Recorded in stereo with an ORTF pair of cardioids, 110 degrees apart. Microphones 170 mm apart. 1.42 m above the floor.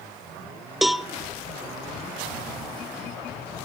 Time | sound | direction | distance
0.8 | a cowbell | straight ahead | 0.8 m